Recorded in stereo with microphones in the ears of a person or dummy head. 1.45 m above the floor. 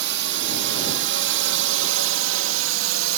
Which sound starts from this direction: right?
A drone, at 0.0 s.